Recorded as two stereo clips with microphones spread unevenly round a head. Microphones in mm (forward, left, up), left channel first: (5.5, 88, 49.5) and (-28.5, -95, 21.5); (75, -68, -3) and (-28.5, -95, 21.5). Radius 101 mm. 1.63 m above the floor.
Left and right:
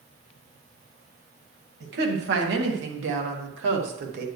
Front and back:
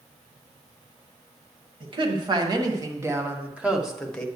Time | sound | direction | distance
1.8 | a woman speaking | 125° right | 2 m